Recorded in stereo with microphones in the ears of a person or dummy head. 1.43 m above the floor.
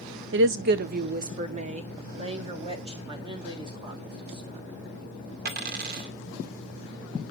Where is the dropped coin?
55° right (ahead or behind), 2 m.